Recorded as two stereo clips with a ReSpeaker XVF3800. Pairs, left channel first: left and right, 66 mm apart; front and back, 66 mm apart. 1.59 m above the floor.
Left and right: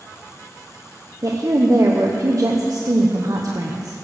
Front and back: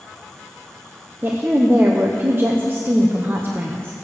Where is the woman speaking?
120° right, 1.0 m.